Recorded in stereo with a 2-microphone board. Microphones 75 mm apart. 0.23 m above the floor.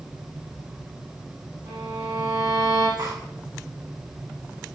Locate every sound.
1.7 s a violin: 75° right (ahead or behind), 9 m
3.0 s cutlery clinking: 70° right (ahead or behind), 9.5 m